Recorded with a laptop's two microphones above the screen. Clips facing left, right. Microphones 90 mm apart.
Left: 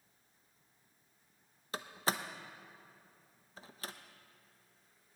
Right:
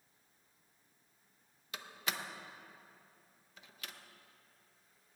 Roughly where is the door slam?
Left.